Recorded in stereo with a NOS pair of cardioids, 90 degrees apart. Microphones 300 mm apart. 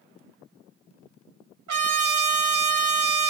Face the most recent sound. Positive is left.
turn(degrees=-65)